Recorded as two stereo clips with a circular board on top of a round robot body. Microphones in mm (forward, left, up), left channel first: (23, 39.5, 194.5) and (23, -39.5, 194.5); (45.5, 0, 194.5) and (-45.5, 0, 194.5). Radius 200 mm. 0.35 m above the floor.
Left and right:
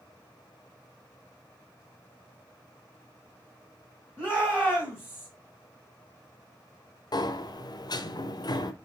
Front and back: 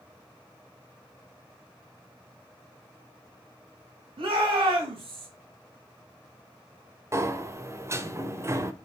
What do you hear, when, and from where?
4.2 s a shout: 175° right, 3.5 m
7.1 s a sliding door: 120° left, 1.1 m